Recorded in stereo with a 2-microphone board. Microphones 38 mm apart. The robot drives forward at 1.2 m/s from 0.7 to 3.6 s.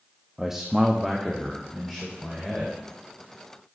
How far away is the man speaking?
About 0.8 m.